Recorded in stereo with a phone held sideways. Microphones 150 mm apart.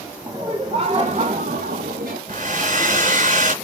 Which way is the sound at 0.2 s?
20° right (ahead or behind).